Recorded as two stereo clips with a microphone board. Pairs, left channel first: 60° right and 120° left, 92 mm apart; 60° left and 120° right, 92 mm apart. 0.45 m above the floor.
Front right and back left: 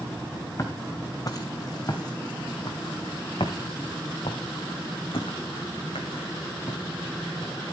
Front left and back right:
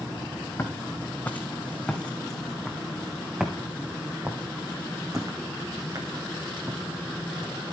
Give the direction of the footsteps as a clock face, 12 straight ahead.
12 o'clock.